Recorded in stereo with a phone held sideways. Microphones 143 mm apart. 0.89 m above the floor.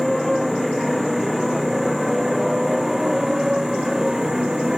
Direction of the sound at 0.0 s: Centre (ahead or behind).